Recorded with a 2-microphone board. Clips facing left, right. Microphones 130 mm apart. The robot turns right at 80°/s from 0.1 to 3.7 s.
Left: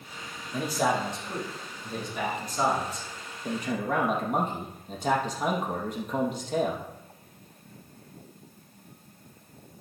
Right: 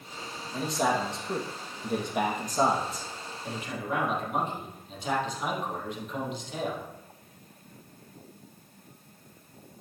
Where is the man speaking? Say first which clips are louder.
Left 1 dB; 155° left, 3 m; by 6.8 s 50° left, 3 m.